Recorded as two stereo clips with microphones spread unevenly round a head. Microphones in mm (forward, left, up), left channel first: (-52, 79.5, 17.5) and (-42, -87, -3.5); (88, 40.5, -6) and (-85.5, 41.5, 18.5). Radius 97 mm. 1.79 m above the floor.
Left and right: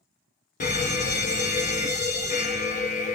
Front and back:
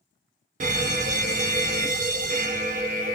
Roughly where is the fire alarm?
Behind left.